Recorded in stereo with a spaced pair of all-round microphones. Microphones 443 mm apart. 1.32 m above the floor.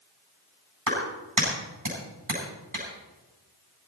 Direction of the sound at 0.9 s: 45° right (ahead or behind).